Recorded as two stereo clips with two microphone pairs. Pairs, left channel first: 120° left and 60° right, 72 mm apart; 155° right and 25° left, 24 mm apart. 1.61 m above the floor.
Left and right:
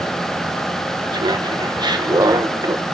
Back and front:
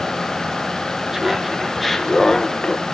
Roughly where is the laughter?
Ahead right.